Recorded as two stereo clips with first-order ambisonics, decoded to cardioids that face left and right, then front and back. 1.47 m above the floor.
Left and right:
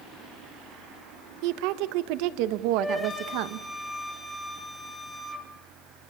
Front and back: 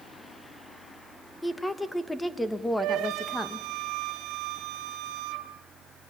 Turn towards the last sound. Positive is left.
turn(degrees=170)